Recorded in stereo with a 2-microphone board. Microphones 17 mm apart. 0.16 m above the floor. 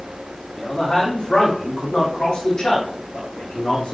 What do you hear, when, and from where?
0.6 s a man speaking: 50° left (ahead or behind), 7 m; by 4.0 s 70° left (ahead or behind), 8 m